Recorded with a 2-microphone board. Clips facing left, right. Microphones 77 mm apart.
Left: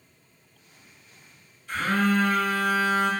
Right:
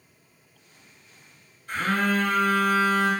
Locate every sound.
1.7 s a phone buzzing: 45° right (ahead or behind), 1.0 m